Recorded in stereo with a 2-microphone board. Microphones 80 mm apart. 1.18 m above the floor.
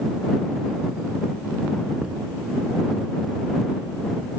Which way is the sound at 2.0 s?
10° right (ahead or behind).